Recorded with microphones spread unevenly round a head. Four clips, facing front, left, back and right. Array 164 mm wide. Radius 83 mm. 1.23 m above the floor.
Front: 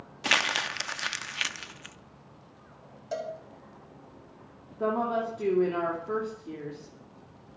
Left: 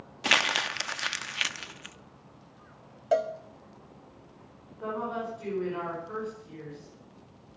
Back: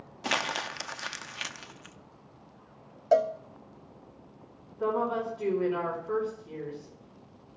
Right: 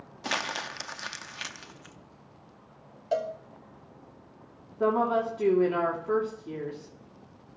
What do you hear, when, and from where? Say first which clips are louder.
0.2 s crumpling: left 4 dB, front 2 dB; 80° left, 0.7 m
3.1 s a cowbell: left 3 dB, back 11 dB; 160° left, 1.0 m
4.8 s a woman speaking: right 8 dB, front 1 dB; 65° right, 3 m